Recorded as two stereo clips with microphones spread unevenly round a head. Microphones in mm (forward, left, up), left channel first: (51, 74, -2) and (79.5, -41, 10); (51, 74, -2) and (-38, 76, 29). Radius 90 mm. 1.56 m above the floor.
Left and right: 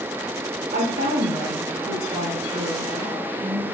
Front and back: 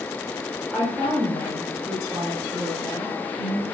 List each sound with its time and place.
0.7 s a woman speaking: 95° right, 5.5 m; by 3.8 s 140° right, 5.5 m